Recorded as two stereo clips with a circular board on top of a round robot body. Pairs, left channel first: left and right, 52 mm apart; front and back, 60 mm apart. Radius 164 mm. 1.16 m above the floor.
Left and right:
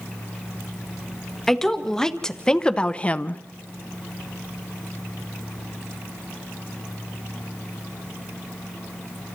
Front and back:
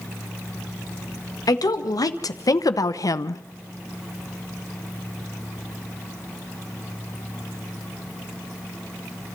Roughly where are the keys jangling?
No keys jangling in this recording.